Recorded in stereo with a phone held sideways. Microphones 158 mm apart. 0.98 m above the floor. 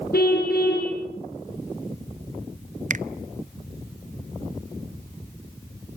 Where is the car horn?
75° left (ahead or behind), 7.5 m.